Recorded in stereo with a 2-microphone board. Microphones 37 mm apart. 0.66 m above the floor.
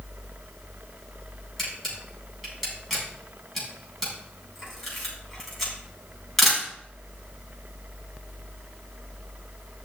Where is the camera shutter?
5° left (ahead or behind), 7 m.